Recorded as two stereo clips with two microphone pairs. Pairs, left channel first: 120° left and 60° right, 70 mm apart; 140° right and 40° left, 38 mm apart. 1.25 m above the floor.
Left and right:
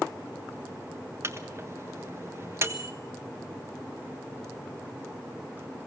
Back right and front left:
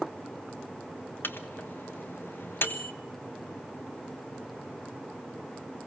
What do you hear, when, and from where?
1.2 s a microwave: 110° right, 1.2 m